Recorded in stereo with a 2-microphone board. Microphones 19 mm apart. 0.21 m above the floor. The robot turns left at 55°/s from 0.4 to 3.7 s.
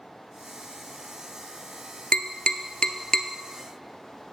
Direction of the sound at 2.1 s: 80° left.